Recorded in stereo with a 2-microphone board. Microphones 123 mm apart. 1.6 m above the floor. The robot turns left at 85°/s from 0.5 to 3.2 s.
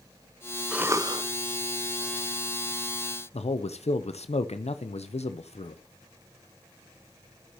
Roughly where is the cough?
Ahead.